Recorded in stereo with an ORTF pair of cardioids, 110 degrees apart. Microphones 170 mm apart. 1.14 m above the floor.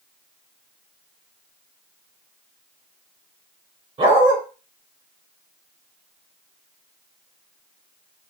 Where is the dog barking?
35° right, 1.9 m.